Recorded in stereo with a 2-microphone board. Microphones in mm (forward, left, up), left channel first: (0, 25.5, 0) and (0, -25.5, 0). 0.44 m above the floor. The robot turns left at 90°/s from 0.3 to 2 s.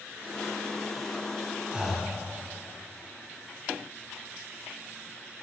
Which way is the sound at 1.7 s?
20° right (ahead or behind).